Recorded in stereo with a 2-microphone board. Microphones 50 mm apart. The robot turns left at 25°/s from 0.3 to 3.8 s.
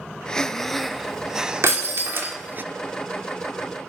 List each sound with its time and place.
0.3 s breathing: 15° left, 0.5 m; by 2.6 s 45° right, 0.5 m
1.6 s breaking glass: 60° right (ahead or behind), 2 m; by 2.4 s 50° right (ahead or behind), 2 m